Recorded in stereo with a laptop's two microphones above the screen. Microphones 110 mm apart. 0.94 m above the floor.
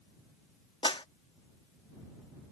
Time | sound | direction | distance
0.8 | a clap | 50° left (ahead or behind) | ?